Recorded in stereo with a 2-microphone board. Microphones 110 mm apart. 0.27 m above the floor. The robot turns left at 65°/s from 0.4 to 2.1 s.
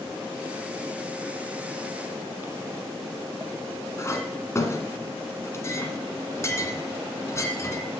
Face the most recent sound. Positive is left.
turn(degrees=30)  # may be behind; listen again after turning